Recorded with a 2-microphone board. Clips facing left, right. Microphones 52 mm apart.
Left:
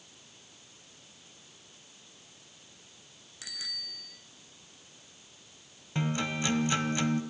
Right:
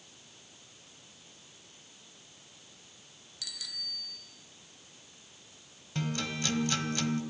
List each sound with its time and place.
3.4 s a bicycle bell: 30° left (ahead or behind), 2.5 m
6.0 s a guitar: 20° left (ahead or behind), 1.5 m